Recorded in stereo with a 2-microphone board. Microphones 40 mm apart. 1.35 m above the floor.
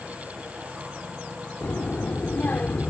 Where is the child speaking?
55° left (ahead or behind); by 2.9 s 40° left (ahead or behind).